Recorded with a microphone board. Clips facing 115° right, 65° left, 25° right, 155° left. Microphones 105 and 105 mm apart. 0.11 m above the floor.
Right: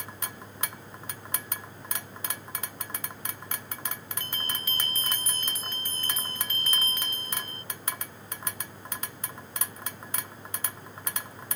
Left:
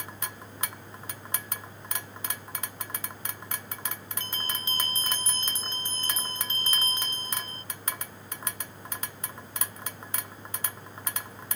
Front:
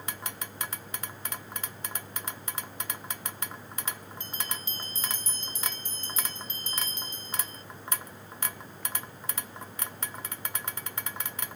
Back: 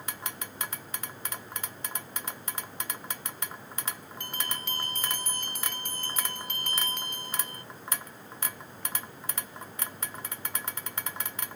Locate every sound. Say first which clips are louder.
4.2 s a bell: left 1 dB, back 3 dB; 130° left